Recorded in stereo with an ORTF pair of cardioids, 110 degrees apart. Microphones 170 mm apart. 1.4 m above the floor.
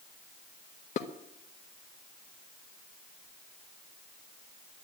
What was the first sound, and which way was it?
Dishes clattering, 45° left.